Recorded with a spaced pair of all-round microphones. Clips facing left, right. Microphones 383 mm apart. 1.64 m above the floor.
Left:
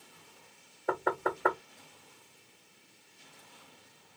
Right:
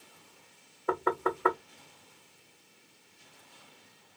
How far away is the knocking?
About 0.6 m.